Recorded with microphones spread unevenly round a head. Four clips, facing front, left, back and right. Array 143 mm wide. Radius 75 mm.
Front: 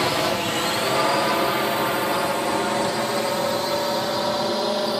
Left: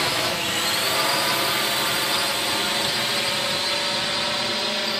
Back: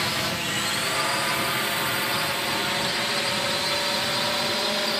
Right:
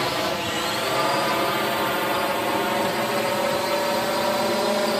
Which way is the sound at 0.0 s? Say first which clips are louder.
Right 1 dB, front 7 dB; 15° right.